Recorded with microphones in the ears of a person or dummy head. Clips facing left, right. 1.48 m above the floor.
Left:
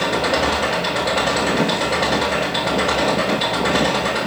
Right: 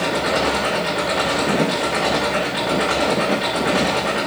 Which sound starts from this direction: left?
An engine running, at 0.0 s.